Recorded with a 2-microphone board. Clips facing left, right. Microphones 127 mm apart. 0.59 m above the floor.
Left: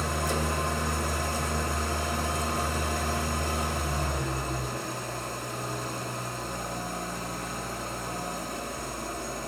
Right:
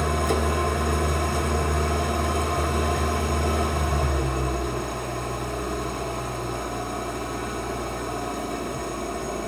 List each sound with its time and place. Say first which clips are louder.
0.0 s an engine running: right 6 dB; 60° right (ahead or behind), 0.9 m